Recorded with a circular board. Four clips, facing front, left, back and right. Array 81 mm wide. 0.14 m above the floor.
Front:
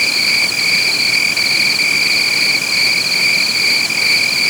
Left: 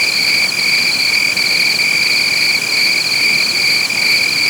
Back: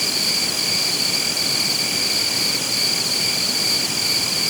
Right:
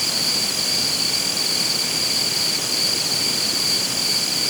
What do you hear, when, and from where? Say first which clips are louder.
0.0 s an insect: left 10 dB, front 8 dB; 50° left